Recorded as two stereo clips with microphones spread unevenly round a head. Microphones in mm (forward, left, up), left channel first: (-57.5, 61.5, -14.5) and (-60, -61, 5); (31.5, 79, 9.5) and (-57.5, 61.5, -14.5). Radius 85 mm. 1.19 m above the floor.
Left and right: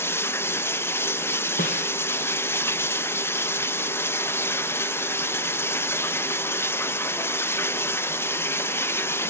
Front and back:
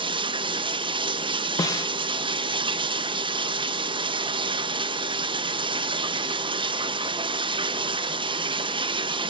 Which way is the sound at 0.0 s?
160° left.